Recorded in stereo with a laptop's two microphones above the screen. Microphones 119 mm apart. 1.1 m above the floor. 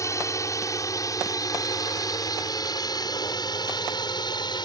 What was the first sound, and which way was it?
A drone, 25° left (ahead or behind).